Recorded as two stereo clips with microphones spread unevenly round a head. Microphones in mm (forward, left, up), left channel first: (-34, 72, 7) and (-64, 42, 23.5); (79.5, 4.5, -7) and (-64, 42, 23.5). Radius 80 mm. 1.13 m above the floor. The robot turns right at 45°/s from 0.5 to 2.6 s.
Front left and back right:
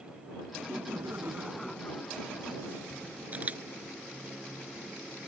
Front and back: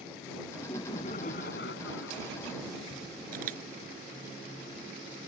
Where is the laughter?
95° right; by 2.3 s 15° right.